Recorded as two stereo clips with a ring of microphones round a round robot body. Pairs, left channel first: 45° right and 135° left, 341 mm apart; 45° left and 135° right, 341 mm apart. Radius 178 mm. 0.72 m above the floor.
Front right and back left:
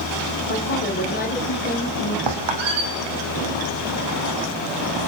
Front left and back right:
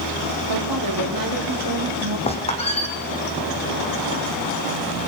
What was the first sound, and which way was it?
A woman speaking, 105° right.